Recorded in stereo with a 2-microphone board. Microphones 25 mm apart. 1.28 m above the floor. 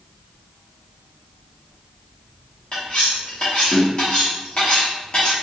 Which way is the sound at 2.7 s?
45° left (ahead or behind).